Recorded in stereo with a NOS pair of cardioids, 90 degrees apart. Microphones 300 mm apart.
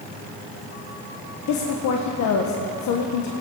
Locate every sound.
1.5 s a woman speaking: 65° left, 1.4 m